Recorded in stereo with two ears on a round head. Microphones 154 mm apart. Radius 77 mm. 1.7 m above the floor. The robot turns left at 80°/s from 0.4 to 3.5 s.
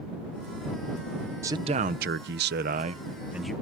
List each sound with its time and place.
1.4 s a man speaking: 20° right; by 3.5 s 175° left